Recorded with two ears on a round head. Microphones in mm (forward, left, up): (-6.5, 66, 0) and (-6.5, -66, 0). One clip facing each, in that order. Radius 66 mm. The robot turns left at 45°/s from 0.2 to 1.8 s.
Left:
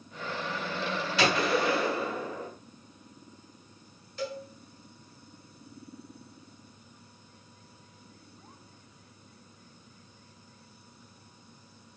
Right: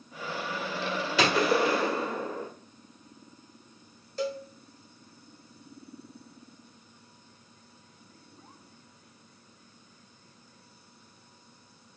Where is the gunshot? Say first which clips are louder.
Right 2 dB; 65° right (ahead or behind), 1.3 m; by 2.5 s 35° right (ahead or behind), 1.3 m.